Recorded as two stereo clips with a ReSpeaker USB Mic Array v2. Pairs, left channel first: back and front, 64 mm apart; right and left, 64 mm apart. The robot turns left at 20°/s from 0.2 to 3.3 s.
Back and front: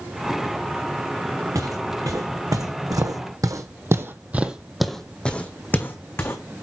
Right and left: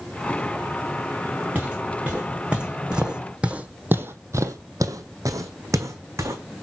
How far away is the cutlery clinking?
No cutlery clinking in this recording.